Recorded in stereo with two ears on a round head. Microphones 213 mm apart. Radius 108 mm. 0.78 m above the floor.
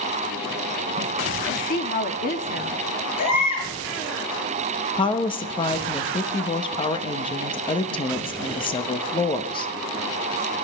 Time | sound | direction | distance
1.5 | a woman speaking | 35° left (ahead or behind) | 1.1 m
3.2 | a baby crying | 65° left (ahead or behind) | 8 m
5.0 | a woman speaking | 20° left (ahead or behind) | 0.9 m